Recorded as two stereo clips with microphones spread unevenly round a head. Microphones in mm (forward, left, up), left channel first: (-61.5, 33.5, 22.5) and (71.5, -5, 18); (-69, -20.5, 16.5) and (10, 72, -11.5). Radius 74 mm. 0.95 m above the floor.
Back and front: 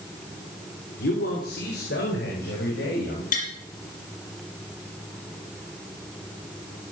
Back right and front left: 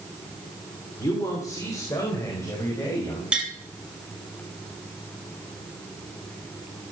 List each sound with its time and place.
1.0 s a man speaking: 165° left, 3 m
3.3 s tapping: 135° left, 5 m